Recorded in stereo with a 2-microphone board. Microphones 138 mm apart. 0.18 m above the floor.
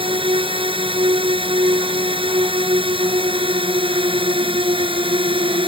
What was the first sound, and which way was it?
A drone, 40° right (ahead or behind).